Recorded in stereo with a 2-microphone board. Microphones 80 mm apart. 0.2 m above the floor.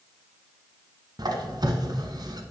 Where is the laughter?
No laughter in this recording.